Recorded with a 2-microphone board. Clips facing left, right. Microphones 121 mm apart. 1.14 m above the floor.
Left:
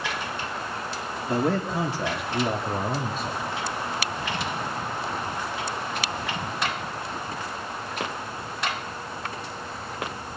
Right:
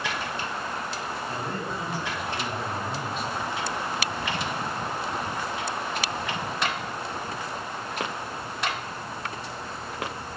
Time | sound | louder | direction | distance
1.3 | a man speaking | left 7 dB | 80° left | 2.5 m